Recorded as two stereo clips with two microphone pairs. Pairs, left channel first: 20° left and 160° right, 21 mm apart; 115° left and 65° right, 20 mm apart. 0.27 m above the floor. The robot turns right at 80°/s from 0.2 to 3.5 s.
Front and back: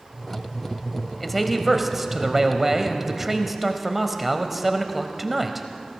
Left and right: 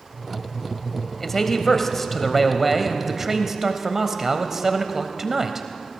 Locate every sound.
1.2 s a man speaking: 85° left, 1.0 m; by 5.7 s 90° right, 1.0 m